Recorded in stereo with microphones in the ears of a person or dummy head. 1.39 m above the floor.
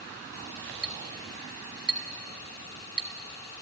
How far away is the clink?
About 1.8 m.